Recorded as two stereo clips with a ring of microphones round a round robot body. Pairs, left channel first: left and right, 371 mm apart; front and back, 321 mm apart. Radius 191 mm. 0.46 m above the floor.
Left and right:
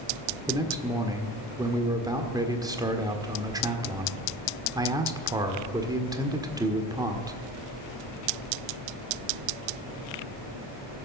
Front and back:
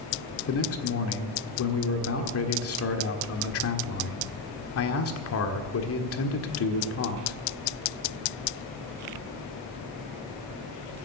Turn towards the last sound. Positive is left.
turn(degrees=-15)